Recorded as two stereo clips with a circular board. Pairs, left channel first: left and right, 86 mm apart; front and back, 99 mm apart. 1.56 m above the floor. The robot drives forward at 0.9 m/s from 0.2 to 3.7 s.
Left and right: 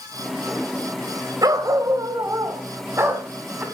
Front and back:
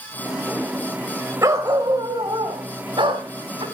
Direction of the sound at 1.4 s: 125° right.